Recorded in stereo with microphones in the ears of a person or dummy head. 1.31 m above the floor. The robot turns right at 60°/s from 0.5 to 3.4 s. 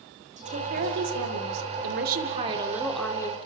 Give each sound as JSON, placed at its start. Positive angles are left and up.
{"t": 0.4, "sound": "a woman speaking", "azimuth_deg": -145, "distance_m": 3.5}